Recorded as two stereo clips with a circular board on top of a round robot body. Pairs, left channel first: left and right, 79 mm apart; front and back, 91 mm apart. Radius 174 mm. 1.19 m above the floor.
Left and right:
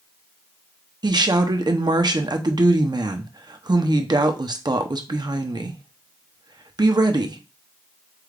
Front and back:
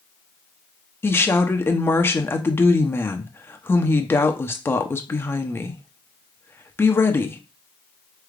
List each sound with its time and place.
1.0 s a woman speaking: 65° right, 0.8 m